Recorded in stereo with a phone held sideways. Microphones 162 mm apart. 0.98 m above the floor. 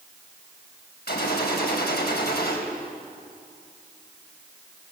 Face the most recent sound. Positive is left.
turn(degrees=85)